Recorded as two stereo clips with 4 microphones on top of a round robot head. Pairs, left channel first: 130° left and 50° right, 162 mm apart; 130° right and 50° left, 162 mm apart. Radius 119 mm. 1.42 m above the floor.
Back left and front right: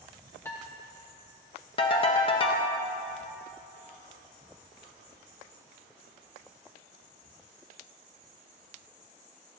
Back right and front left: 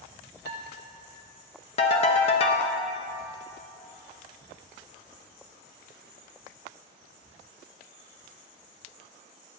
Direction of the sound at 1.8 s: 175° right.